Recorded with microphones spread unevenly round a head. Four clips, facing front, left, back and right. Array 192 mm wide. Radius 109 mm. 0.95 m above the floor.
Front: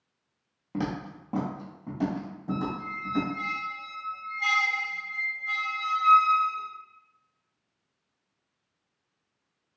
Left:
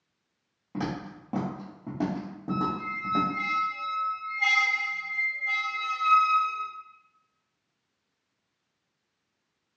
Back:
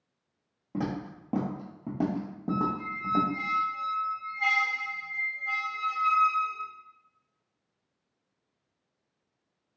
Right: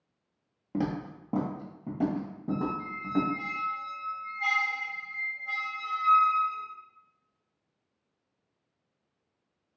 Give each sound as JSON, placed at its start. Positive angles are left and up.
{"t": 0.7, "sound": "footsteps", "azimuth_deg": -80, "distance_m": 1.0}
{"t": 2.5, "sound": "a squeak", "azimuth_deg": 140, "distance_m": 0.7}